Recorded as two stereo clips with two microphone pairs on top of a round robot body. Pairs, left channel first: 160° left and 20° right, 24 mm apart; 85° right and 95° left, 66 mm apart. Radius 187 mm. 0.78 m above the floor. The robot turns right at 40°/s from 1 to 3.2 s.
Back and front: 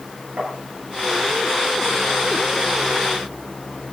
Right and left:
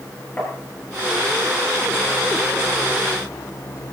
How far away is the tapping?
About 6.5 m.